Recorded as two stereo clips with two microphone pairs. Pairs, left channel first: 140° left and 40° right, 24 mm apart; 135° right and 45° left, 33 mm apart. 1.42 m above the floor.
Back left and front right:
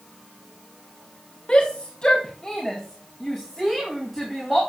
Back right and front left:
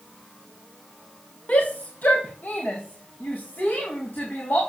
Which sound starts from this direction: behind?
A shout, at 1.5 s.